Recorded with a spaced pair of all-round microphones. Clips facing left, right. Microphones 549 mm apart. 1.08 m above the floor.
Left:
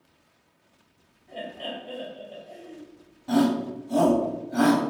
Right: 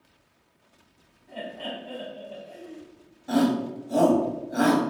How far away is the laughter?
About 2.5 m.